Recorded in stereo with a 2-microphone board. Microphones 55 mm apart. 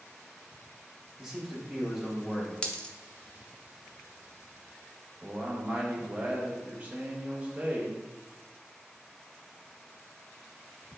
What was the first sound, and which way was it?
A man speaking, 10° right (ahead or behind).